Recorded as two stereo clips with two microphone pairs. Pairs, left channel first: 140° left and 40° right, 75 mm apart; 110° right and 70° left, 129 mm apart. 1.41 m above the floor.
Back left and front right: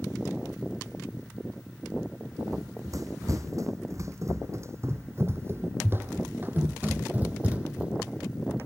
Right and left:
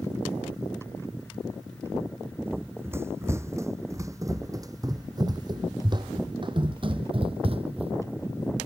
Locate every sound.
2.5 s running footsteps: straight ahead; by 7.9 s 35° left